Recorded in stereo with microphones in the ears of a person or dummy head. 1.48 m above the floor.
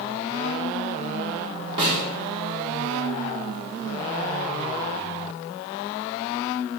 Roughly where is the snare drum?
Right.